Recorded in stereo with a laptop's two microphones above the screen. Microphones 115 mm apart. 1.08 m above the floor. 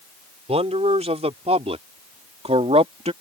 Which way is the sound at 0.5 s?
65° right (ahead or behind).